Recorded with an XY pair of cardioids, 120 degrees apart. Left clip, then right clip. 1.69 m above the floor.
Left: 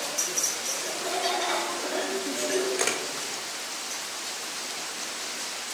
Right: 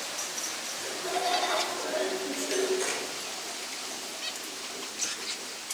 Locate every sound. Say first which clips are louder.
0.8 s laughter: even; 35° left, 5 m
2.8 s a camera shutter: left 4 dB; 70° left, 3 m